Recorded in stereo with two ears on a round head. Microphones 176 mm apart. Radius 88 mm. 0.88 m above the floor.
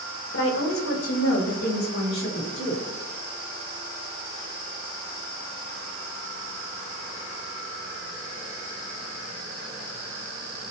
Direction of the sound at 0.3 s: 75° left (ahead or behind).